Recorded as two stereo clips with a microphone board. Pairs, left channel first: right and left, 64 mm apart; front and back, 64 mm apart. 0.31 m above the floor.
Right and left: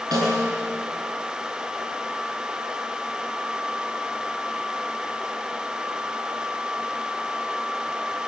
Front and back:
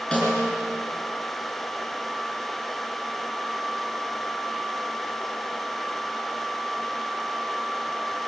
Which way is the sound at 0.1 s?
70° left.